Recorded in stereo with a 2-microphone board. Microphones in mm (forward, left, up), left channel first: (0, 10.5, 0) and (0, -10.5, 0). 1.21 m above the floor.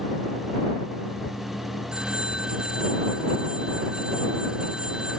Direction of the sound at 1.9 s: 40° right (ahead or behind).